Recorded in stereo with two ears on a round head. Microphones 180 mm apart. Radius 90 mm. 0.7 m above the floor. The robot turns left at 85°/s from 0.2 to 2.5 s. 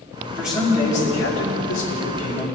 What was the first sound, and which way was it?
A man speaking, 170° right.